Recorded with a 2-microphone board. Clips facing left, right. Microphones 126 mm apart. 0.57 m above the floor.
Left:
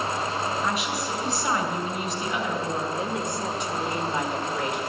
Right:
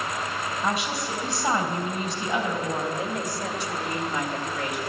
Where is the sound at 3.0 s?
25° left (ahead or behind), 2.0 m.